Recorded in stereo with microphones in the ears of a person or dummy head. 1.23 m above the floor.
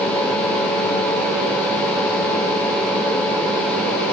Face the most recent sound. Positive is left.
No sound to turn to.